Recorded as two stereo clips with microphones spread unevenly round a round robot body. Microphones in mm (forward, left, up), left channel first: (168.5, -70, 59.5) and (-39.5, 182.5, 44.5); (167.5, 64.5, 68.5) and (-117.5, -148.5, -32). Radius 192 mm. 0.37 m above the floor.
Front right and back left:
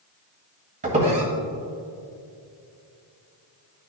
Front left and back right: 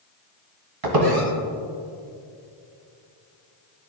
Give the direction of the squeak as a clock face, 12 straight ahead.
5 o'clock.